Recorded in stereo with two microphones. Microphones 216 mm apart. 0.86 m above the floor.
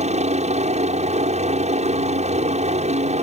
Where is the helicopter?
30° right (ahead or behind).